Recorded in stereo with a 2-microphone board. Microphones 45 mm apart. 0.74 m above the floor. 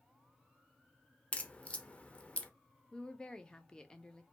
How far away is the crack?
About 0.6 m.